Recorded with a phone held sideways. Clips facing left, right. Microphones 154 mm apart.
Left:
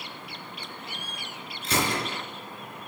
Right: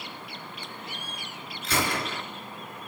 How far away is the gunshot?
About 4 m.